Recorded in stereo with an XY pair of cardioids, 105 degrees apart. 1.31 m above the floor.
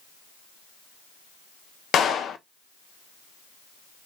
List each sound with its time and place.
1.9 s a clap: 60° left, 0.6 m